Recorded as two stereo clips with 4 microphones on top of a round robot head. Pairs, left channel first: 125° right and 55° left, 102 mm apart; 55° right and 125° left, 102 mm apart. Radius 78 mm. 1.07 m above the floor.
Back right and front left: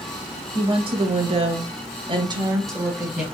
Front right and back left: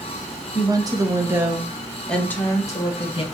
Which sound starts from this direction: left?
A woman speaking, at 0.5 s.